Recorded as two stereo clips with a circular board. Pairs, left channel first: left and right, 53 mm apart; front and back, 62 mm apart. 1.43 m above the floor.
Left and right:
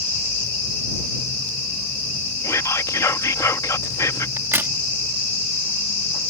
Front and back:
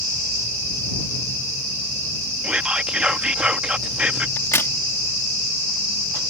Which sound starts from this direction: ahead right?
A crack, at 4.4 s.